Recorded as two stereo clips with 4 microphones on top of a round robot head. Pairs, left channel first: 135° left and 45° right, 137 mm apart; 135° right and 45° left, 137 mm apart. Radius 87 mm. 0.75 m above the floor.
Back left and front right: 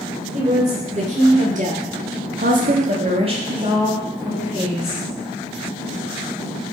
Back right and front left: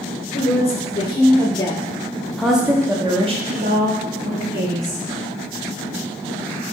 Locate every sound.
0.3 s a woman speaking: 90° right, 2.5 m; by 5.0 s 45° left, 2 m